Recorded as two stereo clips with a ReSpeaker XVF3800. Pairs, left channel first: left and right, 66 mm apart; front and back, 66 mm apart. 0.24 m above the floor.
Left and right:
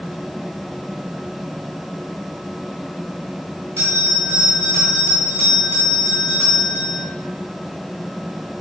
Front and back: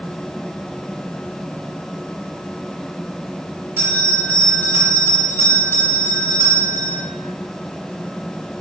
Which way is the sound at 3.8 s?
135° right.